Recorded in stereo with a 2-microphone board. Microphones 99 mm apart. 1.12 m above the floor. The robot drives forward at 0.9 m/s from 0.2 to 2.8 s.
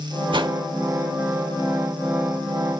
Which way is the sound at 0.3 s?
55° right (ahead or behind).